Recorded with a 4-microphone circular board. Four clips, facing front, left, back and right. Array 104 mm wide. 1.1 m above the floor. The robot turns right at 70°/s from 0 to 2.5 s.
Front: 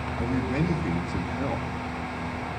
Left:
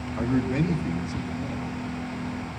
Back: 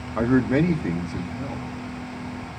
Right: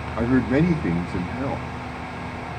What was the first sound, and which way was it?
A man speaking, 160° right.